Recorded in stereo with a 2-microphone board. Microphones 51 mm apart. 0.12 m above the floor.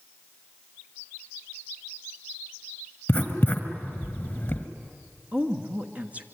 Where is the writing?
30° left (ahead or behind), 2.0 m.